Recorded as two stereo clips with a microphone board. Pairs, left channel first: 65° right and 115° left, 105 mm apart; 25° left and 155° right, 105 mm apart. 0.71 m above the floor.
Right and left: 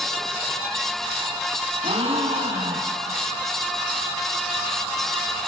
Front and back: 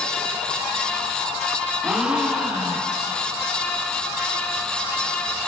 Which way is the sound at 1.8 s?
120° left.